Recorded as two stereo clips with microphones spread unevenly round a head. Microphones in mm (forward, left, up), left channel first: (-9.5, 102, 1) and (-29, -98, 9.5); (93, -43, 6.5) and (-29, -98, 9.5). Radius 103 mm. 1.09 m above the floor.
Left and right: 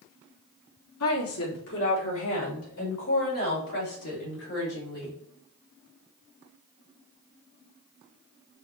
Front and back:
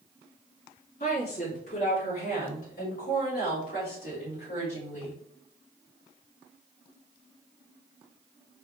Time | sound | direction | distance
1.0 | a woman speaking | 80° left | 2.5 m